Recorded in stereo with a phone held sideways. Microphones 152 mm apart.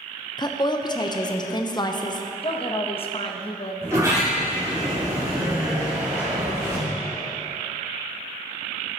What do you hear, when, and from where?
0.4 s a woman speaking: 30° left (ahead or behind), 0.7 m
2.4 s a woman speaking: 40° left (ahead or behind), 0.9 m
3.8 s a sliding door: 20° right (ahead or behind), 3.5 m